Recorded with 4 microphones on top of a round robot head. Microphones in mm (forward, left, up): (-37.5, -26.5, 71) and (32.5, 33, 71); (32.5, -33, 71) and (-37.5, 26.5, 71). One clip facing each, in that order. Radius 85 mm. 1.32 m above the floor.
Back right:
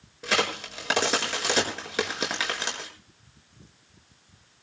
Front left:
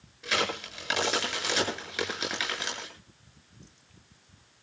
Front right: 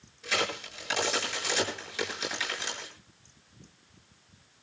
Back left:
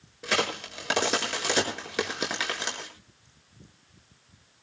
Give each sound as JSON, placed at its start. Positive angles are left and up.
{"t": 0.2, "sound": "a crack", "azimuth_deg": 170, "distance_m": 7.5}